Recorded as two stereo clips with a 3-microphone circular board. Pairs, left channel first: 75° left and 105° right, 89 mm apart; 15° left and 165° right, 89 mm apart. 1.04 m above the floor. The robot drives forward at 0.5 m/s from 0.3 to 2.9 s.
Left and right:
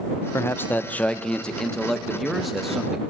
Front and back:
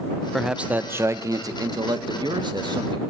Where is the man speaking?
105° left, 0.5 m; by 3.0 s 170° left, 1.5 m.